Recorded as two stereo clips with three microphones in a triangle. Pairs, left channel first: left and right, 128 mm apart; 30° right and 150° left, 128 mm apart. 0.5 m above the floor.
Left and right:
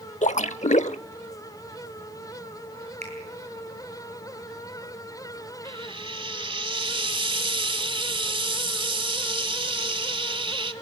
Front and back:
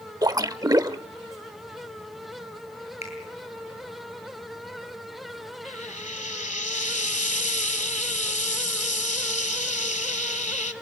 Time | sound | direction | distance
0.2 | a splash | 95° left | 0.7 m
3.0 | a finger snap | 60° right | 8.5 m
5.7 | frying | 45° right | 1.3 m